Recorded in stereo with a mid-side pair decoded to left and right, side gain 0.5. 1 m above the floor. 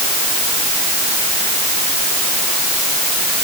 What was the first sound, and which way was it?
Only background noise.